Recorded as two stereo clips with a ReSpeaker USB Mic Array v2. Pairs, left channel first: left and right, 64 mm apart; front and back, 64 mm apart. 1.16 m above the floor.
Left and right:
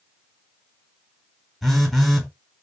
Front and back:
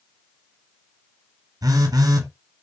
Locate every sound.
1.6 s a phone buzzing: straight behind, 0.9 m